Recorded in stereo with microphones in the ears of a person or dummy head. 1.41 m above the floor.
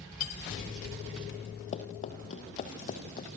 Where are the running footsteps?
30° left (ahead or behind), 3 m; by 3.4 s 35° left (ahead or behind), 4 m.